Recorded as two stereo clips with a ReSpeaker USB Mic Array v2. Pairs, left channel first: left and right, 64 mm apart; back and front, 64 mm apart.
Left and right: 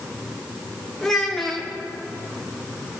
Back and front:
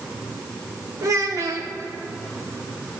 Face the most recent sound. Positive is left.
turn(degrees=5)